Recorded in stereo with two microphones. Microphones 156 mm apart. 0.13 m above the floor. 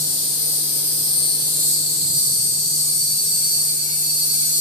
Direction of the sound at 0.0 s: 65° right (ahead or behind).